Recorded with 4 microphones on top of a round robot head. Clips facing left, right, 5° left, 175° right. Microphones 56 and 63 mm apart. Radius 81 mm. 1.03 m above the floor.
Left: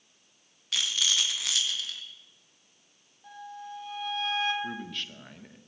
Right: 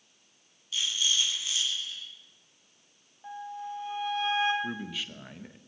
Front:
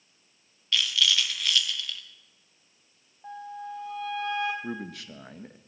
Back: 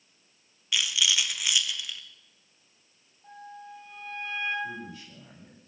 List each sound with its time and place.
0.7 s a rattle: 110° left, 1.7 m
3.2 s a flute: 20° right, 2.5 m
4.6 s a man speaking: 5° right, 1.4 m